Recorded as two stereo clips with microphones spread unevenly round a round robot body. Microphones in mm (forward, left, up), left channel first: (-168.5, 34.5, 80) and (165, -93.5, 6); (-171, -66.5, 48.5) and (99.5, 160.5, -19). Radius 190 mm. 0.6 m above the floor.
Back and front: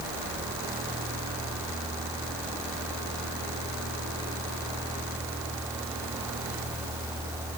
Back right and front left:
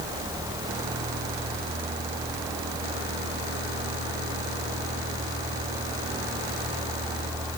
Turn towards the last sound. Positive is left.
No sound to turn to.